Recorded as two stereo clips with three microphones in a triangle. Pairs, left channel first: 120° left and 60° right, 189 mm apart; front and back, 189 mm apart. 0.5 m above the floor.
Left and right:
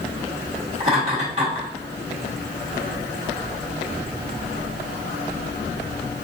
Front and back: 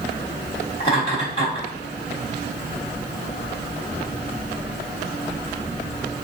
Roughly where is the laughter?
Ahead right.